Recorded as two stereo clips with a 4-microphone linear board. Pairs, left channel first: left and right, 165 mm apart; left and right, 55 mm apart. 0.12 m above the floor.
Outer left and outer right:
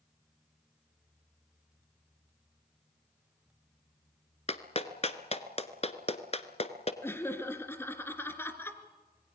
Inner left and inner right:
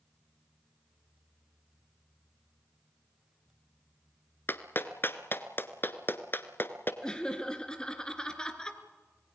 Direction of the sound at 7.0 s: 15° left (ahead or behind).